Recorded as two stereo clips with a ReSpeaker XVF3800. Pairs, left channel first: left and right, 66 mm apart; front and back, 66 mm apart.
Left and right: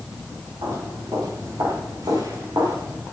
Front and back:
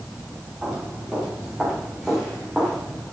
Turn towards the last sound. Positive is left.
turn(degrees=-90)